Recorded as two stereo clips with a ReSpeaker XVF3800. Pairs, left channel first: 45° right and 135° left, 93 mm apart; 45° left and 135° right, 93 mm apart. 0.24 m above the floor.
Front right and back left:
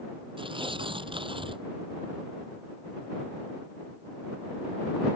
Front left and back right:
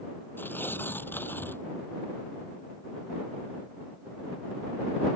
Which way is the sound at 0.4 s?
115° left.